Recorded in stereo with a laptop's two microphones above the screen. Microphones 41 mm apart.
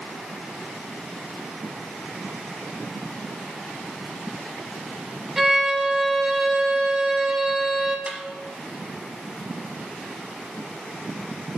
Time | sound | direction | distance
5.4 | a violin | 10° right (ahead or behind) | 0.6 m
8.1 | a snare drum | 30° right (ahead or behind) | 0.9 m